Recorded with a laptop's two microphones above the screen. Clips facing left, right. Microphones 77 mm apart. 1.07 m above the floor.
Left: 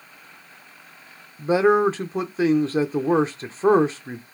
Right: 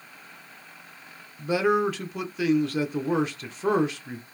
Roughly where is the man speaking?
Left.